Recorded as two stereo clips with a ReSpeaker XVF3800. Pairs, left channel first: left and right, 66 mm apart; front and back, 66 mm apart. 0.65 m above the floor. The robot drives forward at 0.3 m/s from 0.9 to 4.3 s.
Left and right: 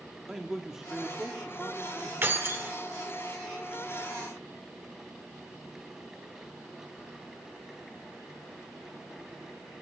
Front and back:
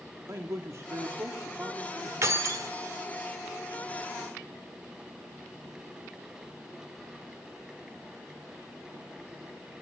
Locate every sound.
0.3 s a man speaking: 170° right, 1.4 m
2.2 s keys jangling: 140° right, 1.4 m; by 2.7 s 145° right, 1.5 m